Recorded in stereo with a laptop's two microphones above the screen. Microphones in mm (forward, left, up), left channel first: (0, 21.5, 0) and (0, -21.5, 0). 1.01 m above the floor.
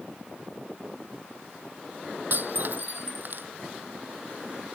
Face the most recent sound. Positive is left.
turn(degrees=-50)  # may be behind; listen again after turning